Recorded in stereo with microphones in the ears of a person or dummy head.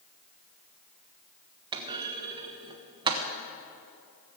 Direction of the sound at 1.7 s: 25° right (ahead or behind).